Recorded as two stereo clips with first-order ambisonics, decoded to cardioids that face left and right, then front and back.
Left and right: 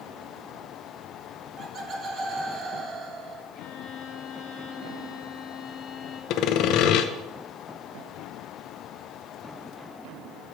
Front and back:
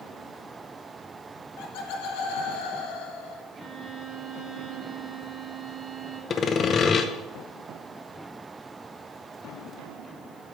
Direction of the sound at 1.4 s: 25° right.